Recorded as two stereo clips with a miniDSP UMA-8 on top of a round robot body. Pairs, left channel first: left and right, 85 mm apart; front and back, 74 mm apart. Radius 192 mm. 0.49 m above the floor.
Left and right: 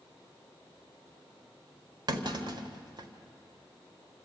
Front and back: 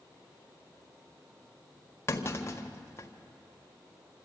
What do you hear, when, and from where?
2.1 s a clunk: 55° right, 1.8 m